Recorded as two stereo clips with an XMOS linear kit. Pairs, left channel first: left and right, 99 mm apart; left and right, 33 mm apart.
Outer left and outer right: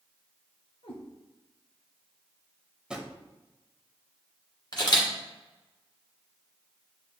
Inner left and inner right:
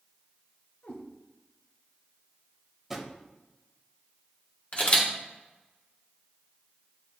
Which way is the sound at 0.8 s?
65° left (ahead or behind).